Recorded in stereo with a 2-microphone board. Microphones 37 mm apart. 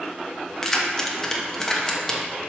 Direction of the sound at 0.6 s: 10° left (ahead or behind).